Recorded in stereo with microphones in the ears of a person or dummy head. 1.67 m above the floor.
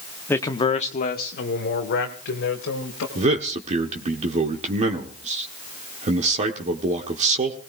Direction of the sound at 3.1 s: 35° right (ahead or behind).